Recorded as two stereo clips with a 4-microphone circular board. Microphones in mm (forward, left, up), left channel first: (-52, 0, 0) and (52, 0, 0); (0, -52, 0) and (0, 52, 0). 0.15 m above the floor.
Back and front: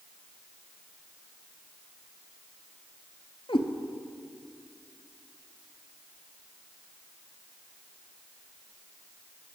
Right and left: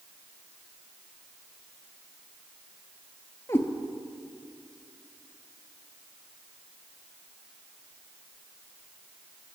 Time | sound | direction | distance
3.5 | a cat meowing | 155° right | 0.8 m